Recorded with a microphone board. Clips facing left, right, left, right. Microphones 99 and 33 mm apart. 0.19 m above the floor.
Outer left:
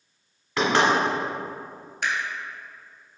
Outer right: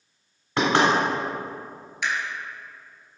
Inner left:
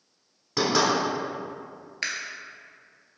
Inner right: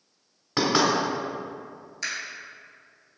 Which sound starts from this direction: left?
A camera shutter, at 2.0 s.